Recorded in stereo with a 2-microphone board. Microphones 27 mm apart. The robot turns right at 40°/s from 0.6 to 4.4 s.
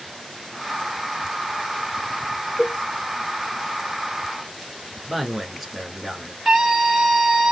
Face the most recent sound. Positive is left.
turn(degrees=-10)  # may be behind; listen again after turning